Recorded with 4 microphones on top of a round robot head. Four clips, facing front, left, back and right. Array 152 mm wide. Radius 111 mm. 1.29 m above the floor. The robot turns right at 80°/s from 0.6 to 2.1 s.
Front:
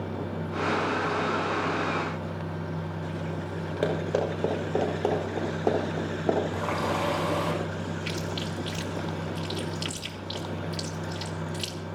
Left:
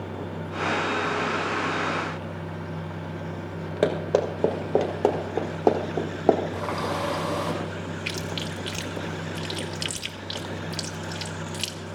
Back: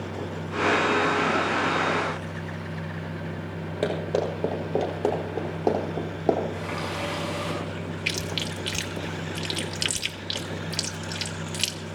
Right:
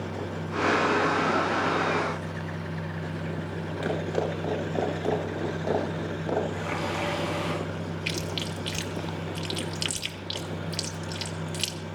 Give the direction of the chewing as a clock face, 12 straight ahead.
6 o'clock.